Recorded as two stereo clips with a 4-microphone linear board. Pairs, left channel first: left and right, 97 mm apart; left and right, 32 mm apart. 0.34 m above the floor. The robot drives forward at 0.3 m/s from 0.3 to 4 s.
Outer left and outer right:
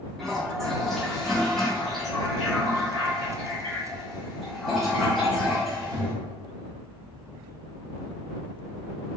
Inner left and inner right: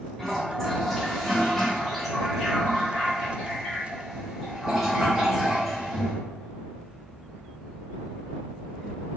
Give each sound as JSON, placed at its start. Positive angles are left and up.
{"t": 0.2, "sound": "a toilet flushing", "side_deg": 5, "distance_m": 1.1}